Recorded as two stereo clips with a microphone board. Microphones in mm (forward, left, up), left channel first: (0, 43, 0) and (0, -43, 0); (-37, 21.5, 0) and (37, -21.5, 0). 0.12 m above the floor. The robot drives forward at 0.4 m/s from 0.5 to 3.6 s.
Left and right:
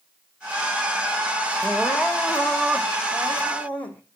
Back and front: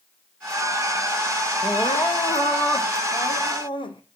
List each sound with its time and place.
1.6 s crying: 155° left, 2 m; by 4.0 s 165° left, 3 m